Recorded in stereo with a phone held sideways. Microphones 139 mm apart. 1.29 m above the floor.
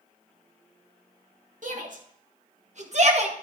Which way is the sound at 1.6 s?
65° right (ahead or behind).